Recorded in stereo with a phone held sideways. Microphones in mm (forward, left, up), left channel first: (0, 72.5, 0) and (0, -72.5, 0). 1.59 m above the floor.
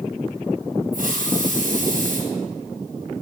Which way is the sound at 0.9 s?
70° right (ahead or behind).